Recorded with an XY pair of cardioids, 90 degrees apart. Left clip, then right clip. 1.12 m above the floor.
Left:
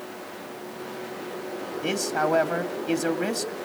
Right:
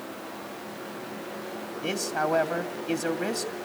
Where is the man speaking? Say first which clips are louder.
Left 3 dB; 25° left, 2.5 m.